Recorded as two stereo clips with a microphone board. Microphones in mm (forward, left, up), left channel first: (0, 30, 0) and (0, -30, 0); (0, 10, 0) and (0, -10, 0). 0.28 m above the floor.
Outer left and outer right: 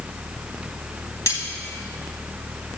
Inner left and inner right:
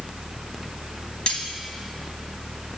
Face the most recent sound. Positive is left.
turn(degrees=60)  # may be behind; listen again after turning